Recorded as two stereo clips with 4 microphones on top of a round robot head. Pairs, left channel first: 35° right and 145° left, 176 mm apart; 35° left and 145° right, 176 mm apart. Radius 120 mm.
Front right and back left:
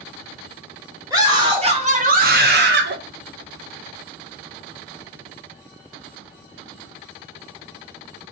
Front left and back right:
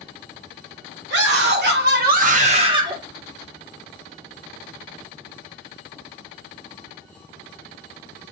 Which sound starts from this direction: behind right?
A scream, at 1.1 s.